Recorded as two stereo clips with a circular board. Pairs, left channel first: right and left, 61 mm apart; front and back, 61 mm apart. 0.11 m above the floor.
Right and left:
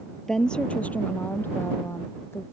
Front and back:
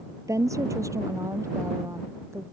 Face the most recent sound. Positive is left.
turn(degrees=-140)